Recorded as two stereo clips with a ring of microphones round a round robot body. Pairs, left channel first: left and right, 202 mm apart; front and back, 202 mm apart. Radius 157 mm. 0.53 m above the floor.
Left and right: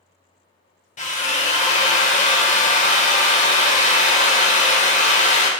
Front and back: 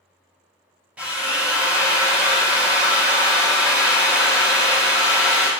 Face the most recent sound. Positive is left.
turn(degrees=100)